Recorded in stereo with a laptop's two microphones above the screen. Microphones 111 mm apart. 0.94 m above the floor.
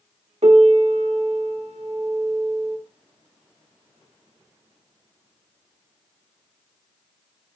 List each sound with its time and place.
0.4 s a piano: 80° right, 0.7 m